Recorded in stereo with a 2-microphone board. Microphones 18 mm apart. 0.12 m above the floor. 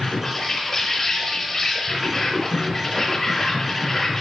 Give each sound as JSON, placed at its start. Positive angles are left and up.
{"t": 0.0, "sound": "an insect", "side_deg": 35, "distance_m": 3.5}